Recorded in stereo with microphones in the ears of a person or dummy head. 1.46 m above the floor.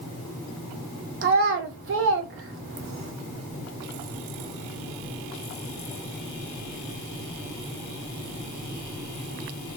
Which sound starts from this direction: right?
A child speaking, at 1.2 s.